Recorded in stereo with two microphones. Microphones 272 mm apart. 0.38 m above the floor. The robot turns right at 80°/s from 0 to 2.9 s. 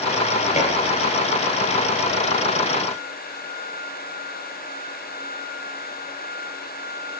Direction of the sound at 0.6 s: 25° left (ahead or behind).